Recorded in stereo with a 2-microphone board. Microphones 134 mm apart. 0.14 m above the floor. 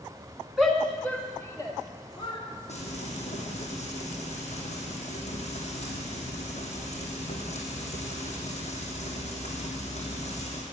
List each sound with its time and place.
0.6 s a shout: 5° right (ahead or behind), 1.6 m; by 2.4 s 40° left (ahead or behind), 2 m
2.7 s frying: 55° left (ahead or behind), 3 m